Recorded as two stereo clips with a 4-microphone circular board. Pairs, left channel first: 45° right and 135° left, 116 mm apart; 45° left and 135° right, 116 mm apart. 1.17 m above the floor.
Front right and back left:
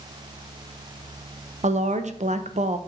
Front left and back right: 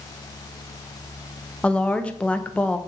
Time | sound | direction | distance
1.6 | a woman speaking | 125° left | 0.7 m